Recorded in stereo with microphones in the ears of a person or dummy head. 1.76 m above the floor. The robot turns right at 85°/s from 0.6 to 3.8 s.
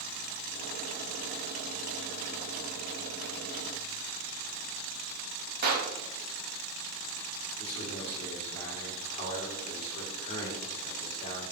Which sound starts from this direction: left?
A man speaking, at 7.6 s.